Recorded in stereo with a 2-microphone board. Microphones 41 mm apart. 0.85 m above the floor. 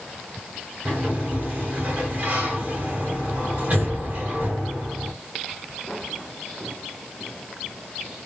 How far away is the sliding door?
About 3 m.